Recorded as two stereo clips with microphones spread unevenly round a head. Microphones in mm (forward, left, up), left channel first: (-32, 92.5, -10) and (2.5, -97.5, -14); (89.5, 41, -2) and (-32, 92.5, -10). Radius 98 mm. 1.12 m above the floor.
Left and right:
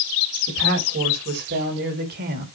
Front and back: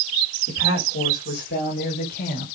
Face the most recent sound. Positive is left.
turn(degrees=-30)